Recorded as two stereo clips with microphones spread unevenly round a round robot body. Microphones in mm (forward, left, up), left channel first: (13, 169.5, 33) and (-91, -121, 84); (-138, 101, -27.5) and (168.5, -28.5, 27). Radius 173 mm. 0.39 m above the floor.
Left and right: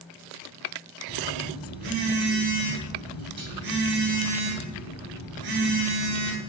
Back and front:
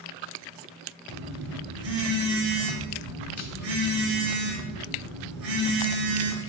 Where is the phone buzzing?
75° right, 1.1 m.